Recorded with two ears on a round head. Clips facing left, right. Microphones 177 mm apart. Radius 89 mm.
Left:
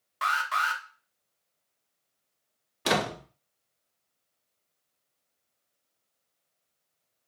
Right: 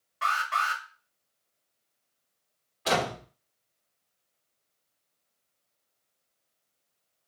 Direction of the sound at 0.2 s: 75° left (ahead or behind).